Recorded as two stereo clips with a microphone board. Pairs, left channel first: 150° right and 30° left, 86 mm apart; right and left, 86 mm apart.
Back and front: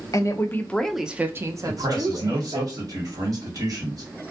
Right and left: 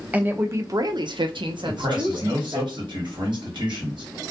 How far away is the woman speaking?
About 0.6 m.